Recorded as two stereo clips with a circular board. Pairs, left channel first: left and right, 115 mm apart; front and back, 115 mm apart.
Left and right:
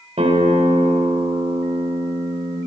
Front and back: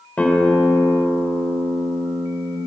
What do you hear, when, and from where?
0.2 s a guitar: 75° right, 3 m